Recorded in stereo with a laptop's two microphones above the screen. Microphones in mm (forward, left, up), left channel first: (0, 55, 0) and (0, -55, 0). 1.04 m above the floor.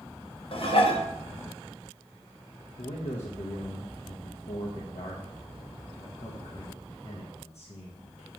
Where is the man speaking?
75° left (ahead or behind), 0.9 m.